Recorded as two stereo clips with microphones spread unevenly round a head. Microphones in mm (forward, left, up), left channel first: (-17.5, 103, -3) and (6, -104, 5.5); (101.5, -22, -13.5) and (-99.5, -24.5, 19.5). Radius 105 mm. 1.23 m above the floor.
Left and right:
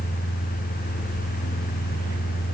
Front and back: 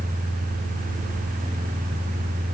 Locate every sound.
Only background noise.